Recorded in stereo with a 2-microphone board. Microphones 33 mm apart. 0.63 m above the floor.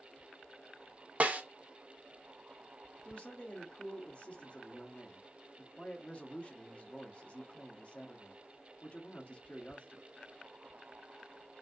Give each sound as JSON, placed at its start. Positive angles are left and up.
{"t": 1.2, "sound": "a snare drum", "side_deg": -40, "distance_m": 0.8}
{"t": 3.0, "sound": "a man speaking", "side_deg": 35, "distance_m": 1.0}